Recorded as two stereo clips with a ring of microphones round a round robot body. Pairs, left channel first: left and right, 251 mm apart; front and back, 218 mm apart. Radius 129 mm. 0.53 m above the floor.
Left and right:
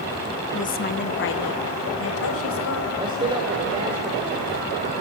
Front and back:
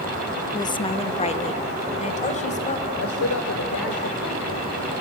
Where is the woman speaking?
60° left, 0.7 m; by 2.9 s 55° left, 3 m.